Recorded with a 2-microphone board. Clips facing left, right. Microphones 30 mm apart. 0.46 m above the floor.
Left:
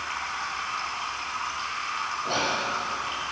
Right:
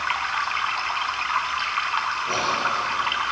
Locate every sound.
0.0 s running water: 55° right (ahead or behind), 0.8 m
2.2 s whispering: 45° left (ahead or behind), 3.5 m